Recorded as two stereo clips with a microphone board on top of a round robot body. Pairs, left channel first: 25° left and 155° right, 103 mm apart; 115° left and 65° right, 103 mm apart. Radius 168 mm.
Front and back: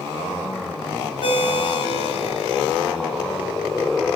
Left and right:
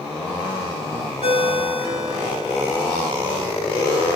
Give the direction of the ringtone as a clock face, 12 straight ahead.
1 o'clock.